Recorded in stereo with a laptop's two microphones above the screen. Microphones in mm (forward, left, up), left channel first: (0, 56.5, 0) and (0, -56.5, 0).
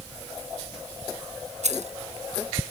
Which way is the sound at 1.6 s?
75° right (ahead or behind).